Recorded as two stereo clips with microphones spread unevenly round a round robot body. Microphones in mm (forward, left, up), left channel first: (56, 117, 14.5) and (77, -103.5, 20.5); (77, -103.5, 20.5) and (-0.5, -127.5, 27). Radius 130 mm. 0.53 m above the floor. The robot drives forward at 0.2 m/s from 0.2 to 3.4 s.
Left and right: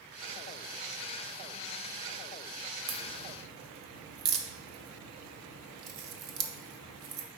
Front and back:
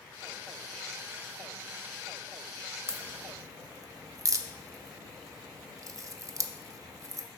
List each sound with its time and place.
2.9 s a crack: 105° right, 0.5 m; by 7.3 s 115° right, 0.6 m